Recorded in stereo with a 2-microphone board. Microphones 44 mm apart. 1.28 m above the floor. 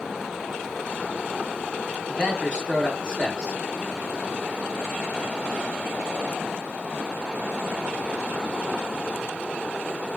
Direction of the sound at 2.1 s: 20° left (ahead or behind).